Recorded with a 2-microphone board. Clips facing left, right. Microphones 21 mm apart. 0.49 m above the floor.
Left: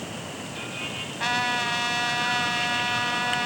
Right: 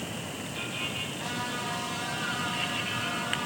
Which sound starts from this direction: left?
A trumpet, at 1.2 s.